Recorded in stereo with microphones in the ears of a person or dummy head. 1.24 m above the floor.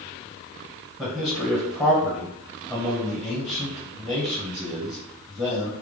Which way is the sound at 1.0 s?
Centre (ahead or behind).